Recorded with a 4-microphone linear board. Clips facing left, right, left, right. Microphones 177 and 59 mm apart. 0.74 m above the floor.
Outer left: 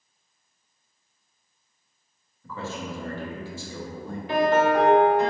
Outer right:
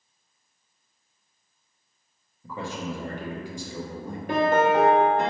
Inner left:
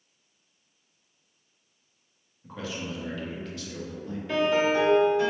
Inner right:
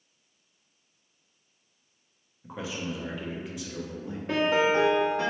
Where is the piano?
50° right (ahead or behind), 1.0 m.